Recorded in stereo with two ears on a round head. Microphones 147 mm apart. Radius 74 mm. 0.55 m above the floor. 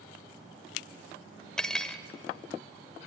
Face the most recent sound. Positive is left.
turn(degrees=5)  # may be behind; listen again after turning